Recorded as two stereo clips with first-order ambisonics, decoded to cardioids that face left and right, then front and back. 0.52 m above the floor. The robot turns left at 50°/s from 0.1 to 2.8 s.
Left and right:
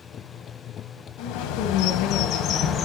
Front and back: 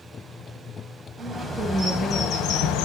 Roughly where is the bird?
Left.